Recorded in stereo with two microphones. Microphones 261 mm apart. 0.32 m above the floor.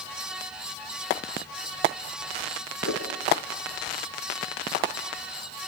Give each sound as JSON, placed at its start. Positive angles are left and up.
{"t": 2.8, "sound": "a whoosh", "side_deg": 70, "distance_m": 3.0}